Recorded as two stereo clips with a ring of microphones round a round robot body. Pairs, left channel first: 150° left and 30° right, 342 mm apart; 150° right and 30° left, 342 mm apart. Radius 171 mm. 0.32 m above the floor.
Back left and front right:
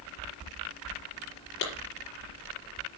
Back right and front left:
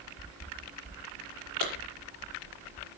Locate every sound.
1.6 s a clap: 150° right, 5.5 m